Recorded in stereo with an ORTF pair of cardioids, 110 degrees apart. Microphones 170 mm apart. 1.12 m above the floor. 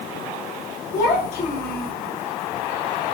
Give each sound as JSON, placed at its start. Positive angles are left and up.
{"t": 0.9, "sound": "a child speaking", "azimuth_deg": 60, "distance_m": 0.9}